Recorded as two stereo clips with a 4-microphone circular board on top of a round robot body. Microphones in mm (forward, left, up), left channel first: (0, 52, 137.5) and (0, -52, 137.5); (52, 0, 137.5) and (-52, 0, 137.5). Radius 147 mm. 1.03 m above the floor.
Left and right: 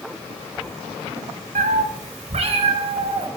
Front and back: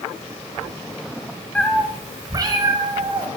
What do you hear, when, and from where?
1.6 s a cat meowing: 75° right, 0.7 m; by 3.3 s 130° right, 2.5 m